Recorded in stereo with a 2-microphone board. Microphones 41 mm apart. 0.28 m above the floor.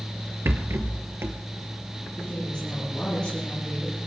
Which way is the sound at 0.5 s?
60° right (ahead or behind).